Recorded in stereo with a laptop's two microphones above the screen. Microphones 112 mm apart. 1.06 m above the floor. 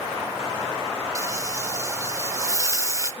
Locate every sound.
1.1 s frying: 30° right (ahead or behind), 0.7 m